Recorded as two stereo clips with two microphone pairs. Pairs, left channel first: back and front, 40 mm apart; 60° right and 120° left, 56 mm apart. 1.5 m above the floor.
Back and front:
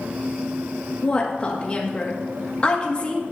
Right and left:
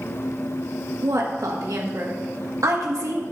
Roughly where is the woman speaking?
Behind left.